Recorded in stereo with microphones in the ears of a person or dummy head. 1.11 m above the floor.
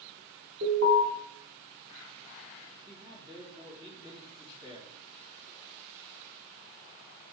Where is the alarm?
50° right (ahead or behind), 1.3 m.